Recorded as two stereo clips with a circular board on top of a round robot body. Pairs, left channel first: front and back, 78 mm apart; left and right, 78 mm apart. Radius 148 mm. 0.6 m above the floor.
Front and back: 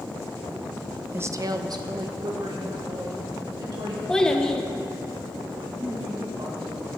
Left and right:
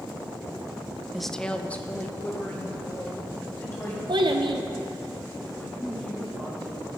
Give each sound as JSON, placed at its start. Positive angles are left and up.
{"t": 1.1, "sound": "a woman speaking", "azimuth_deg": -170, "distance_m": 0.6}
{"t": 4.1, "sound": "a child speaking", "azimuth_deg": -80, "distance_m": 1.0}
{"t": 5.5, "sound": "a woman speaking", "azimuth_deg": 165, "distance_m": 1.8}